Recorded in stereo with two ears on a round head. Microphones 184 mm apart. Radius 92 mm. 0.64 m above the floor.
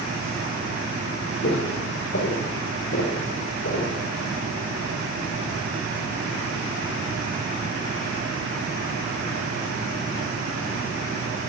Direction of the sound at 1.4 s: 55° left (ahead or behind).